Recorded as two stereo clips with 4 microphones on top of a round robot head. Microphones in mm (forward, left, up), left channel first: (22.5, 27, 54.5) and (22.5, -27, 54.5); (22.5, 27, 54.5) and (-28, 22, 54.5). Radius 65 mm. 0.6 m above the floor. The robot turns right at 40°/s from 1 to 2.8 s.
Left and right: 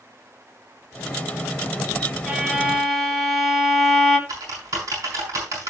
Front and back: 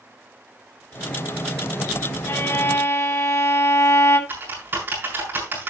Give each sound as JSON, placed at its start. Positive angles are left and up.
{"t": 2.3, "sound": "a violin", "azimuth_deg": -25, "distance_m": 2.5}
{"t": 4.3, "sound": "typing on a keyboard", "azimuth_deg": -125, "distance_m": 6.0}